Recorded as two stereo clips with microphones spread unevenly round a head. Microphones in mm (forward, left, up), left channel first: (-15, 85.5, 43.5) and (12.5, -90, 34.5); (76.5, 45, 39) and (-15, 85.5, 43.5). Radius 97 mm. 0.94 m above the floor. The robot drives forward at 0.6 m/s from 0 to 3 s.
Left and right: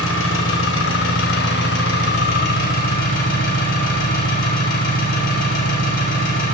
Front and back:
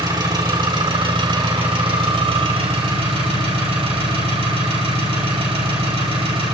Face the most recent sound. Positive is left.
turn(degrees=140)